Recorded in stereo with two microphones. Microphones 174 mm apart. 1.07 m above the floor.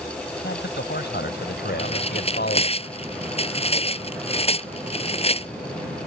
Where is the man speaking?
85° left; by 2.8 s 75° left (ahead or behind).